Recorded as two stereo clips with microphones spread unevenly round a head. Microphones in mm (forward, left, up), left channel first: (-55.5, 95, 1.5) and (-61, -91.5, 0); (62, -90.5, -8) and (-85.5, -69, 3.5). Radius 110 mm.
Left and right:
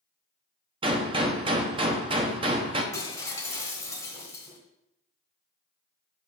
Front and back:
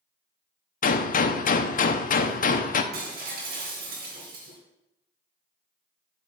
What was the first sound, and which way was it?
A gunshot, 25° right.